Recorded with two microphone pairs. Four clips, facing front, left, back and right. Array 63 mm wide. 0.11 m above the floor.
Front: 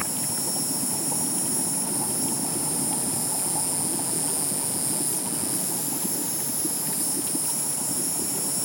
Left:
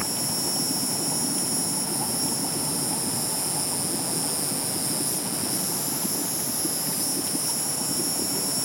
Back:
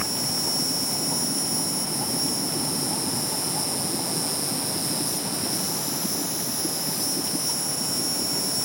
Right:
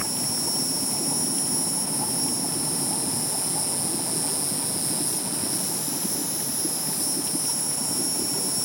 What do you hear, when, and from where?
0.0 s an insect: 165° right, 1.1 m